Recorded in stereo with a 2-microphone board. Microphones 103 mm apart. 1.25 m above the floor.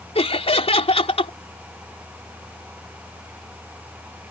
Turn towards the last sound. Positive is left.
turn(degrees=85)